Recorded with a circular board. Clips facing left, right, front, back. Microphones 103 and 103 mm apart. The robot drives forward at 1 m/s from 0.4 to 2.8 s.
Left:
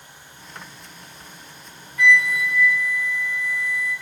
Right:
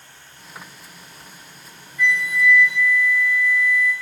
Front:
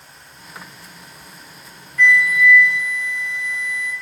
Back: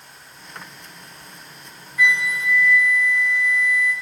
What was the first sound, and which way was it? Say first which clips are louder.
A flute: left 2 dB, front 5 dB; 100° left.